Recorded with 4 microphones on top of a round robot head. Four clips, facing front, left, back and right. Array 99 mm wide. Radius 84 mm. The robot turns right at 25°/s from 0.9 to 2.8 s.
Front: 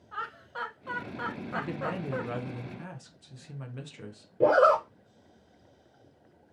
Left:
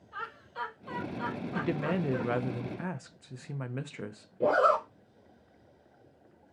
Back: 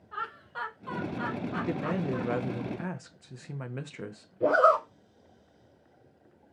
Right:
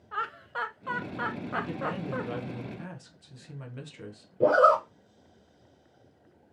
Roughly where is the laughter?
Right.